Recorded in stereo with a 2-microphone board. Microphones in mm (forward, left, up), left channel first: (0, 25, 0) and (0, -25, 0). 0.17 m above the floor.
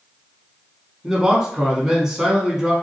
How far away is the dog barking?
No dog barking in this recording.